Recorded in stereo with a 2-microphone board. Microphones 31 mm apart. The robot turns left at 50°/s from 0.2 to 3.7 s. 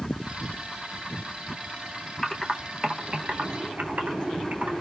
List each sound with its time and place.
2.2 s typing on a keyboard: 15° left (ahead or behind), 0.5 m; by 4.8 s 60° right (ahead or behind), 0.5 m